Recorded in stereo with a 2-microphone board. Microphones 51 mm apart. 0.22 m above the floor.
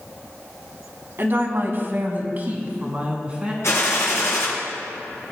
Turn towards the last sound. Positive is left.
turn(degrees=65)  # may be behind; listen again after turning